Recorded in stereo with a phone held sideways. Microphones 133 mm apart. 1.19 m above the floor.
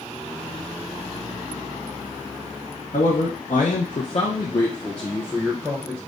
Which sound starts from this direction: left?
A man speaking, at 2.9 s.